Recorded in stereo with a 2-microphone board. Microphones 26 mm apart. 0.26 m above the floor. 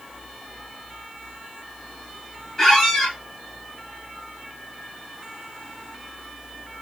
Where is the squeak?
15° left (ahead or behind), 1.9 m.